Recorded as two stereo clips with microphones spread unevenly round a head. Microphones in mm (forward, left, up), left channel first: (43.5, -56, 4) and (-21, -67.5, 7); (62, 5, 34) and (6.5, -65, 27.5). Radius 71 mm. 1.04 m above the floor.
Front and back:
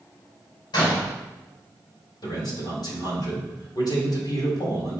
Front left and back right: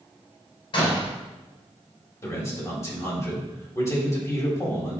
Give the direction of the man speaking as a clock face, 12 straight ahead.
12 o'clock.